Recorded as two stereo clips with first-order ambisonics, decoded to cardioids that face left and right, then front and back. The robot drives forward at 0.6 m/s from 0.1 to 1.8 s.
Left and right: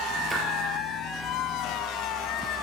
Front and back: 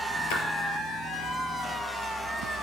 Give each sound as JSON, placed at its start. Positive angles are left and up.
{"t": 0.3, "sound": "a splash", "azimuth_deg": -15, "distance_m": 4.0}